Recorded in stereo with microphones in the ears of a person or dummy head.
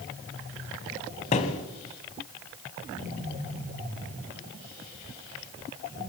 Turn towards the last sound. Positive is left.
turn(degrees=30)  # may be behind; listen again after turning